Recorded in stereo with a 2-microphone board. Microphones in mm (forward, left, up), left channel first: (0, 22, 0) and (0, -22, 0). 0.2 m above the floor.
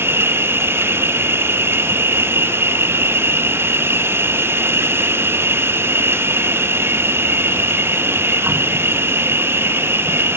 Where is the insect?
65° right (ahead or behind), 1.1 m.